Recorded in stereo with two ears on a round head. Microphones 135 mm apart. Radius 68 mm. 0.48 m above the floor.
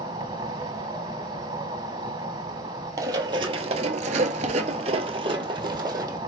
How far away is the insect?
About 1.5 m.